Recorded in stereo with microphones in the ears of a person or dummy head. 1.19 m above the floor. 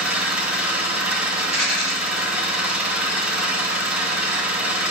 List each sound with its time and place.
0.0 s an engine running: centre (ahead or behind), 2.5 m
1.4 s a rattle: 15° left (ahead or behind), 6.5 m